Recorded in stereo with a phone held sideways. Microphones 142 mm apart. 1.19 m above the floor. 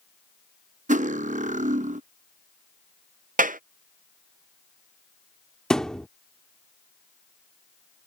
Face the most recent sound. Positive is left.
turn(degrees=5)  # may be behind; listen again after turning